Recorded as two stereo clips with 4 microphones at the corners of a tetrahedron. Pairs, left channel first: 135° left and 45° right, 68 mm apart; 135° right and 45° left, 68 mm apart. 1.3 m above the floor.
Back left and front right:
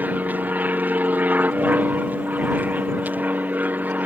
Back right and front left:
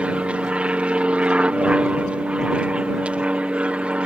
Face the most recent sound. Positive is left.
turn(degrees=-10)